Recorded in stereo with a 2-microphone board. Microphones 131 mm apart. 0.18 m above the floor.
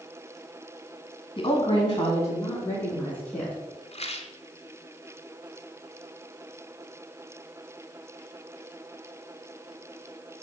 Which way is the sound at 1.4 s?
40° left (ahead or behind).